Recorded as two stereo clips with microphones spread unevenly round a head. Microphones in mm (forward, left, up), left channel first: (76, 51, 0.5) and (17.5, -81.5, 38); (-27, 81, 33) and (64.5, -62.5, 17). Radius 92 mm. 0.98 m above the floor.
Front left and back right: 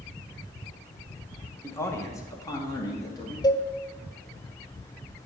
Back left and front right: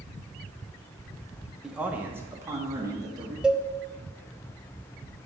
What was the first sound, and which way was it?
A man speaking, 20° left.